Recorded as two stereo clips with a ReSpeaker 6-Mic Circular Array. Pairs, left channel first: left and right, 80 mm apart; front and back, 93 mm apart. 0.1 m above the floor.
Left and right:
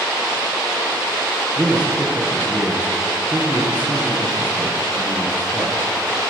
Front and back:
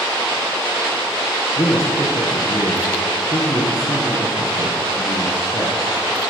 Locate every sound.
1.6 s a man speaking: 30° right, 2.0 m